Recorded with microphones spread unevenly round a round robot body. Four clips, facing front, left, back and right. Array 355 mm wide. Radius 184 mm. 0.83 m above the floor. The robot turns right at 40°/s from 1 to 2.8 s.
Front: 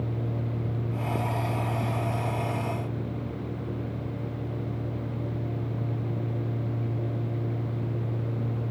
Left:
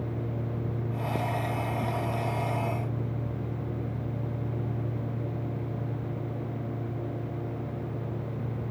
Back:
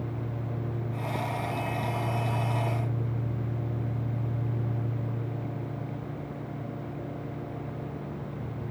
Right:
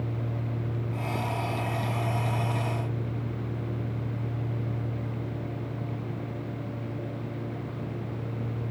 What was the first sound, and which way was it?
Only background noise.